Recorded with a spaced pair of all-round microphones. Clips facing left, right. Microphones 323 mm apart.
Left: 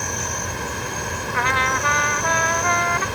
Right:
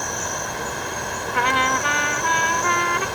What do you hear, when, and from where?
0.0 s an insect: 35° left (ahead or behind)
1.3 s a trumpet: 40° right (ahead or behind)